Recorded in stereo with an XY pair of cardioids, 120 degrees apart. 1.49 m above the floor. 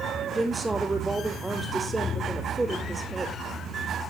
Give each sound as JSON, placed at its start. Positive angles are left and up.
{"t": 0.3, "sound": "a woman speaking", "azimuth_deg": -15, "distance_m": 4.5}